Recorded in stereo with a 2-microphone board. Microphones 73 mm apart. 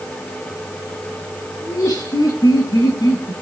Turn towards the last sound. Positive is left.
turn(degrees=60)  # may be behind; listen again after turning